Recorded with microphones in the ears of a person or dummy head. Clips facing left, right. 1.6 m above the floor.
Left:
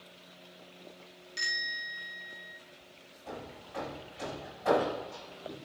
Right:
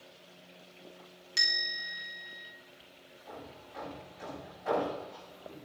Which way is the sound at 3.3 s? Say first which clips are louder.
Left 4 dB; 70° left (ahead or behind).